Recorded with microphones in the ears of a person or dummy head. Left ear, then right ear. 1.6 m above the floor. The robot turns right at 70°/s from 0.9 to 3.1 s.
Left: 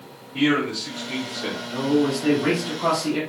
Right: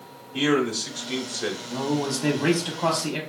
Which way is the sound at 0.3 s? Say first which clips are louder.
Left 1 dB; 145° right.